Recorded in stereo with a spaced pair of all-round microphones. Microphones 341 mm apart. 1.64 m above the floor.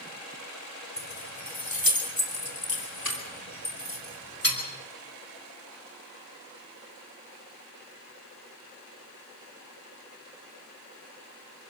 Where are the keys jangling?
65° left (ahead or behind), 3 m; by 4.6 s 80° left, 6 m.